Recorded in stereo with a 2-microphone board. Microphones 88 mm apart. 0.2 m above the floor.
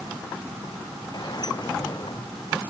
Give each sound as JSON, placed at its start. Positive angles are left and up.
{"t": 1.1, "sound": "a sliding door", "side_deg": 45}